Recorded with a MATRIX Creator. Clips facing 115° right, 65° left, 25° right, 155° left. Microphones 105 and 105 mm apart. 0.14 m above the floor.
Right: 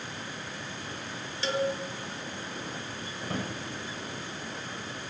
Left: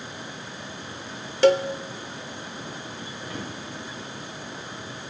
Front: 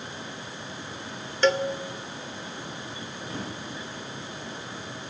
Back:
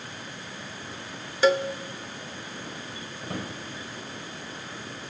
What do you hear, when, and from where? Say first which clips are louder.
1.4 s a cowbell: left 11 dB, back 1 dB; 75° left, 0.6 m
3.2 s a drawer: right 2 dB, back 2 dB; 155° right, 6.5 m